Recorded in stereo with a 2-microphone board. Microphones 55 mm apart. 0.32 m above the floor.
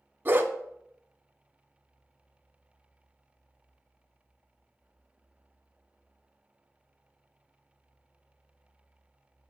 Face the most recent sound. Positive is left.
turn(degrees=-40)  # may be behind; listen again after turning